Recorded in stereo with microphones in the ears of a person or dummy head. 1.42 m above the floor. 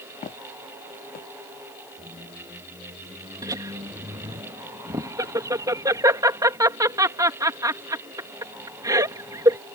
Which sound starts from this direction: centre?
A squeak, at 2.0 s.